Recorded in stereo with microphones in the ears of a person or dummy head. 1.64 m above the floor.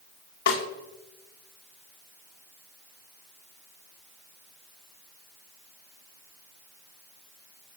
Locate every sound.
0.5 s a snare drum: 75° left (ahead or behind), 1.5 m